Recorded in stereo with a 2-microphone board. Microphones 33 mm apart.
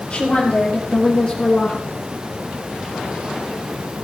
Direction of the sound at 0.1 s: 35° left (ahead or behind).